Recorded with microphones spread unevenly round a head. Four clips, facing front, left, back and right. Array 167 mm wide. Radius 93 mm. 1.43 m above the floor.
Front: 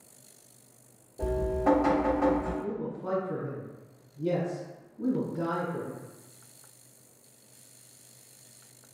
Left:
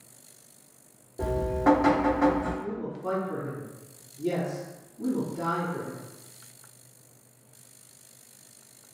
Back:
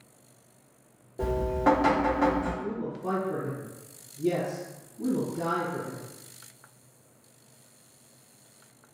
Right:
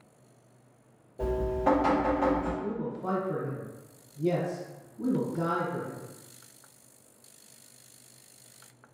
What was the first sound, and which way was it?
Dripping, 100° left.